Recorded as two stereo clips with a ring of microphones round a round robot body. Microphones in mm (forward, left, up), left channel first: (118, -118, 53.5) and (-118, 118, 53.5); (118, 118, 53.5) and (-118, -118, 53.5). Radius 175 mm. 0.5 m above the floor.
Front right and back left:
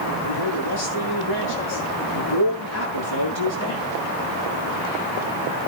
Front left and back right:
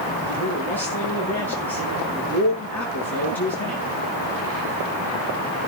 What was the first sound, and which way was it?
A man speaking, 40° right.